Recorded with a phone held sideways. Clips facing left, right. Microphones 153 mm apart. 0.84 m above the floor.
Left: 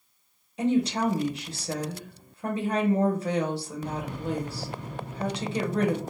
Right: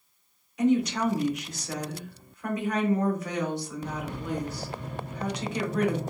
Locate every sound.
0.6 s a woman speaking: 30° left (ahead or behind), 0.8 m